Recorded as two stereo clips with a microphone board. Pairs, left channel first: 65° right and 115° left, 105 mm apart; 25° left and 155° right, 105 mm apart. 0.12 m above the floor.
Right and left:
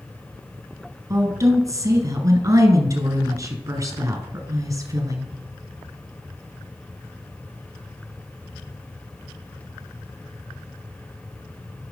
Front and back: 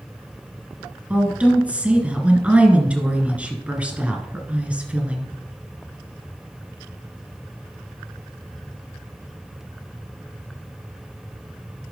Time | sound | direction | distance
1.1 | a woman speaking | 135° left | 1.7 m